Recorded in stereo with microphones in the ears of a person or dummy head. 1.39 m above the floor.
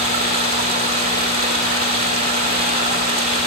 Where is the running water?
45° right (ahead or behind), 1.8 m.